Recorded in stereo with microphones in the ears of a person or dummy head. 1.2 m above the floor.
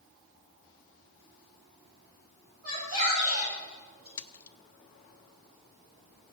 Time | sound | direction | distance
2.6 | a shout | 35° right (ahead or behind) | 7.5 m
4.2 | a splash | 15° left (ahead or behind) | 0.5 m